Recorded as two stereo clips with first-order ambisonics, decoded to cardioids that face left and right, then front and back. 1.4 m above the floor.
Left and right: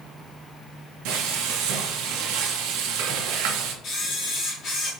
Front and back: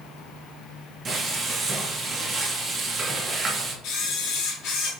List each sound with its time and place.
1.1 s frying: 110° right, 1.1 m
3.8 s a camera shutter: 35° left, 1.9 m